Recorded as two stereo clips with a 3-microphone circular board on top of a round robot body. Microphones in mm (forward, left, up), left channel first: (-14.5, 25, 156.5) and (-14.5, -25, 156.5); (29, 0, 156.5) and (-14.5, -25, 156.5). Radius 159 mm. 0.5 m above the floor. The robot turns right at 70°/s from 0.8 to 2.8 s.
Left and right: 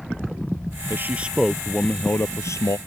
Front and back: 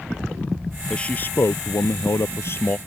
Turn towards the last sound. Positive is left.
turn(degrees=90)